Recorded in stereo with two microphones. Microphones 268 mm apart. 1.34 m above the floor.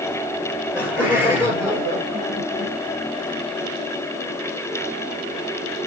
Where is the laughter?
5° right (ahead or behind), 4.5 m; by 2.7 s 20° right (ahead or behind), 2.5 m.